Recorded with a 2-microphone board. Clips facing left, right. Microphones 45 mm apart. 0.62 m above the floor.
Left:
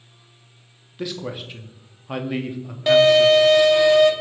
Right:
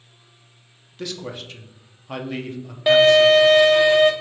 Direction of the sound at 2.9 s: 10° right (ahead or behind).